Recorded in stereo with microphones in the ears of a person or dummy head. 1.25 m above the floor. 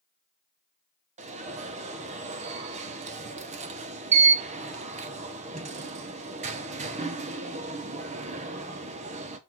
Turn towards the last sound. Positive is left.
turn(degrees=-35)  # may be behind; listen again after turning